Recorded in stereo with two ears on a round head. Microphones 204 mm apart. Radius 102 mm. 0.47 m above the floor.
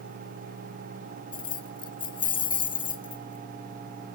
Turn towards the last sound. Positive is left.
turn(degrees=20)  # may be behind; listen again after turning